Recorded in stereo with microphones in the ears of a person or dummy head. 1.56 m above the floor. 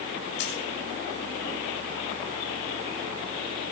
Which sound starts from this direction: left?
A dropped coin, at 0.4 s.